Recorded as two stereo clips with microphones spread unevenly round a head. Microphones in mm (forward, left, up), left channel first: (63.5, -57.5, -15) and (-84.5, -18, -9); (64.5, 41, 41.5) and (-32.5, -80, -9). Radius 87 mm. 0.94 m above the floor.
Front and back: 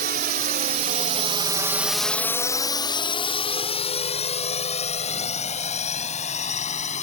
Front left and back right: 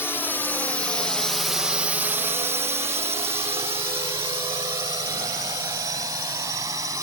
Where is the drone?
135° left; by 7.0 s 60° right.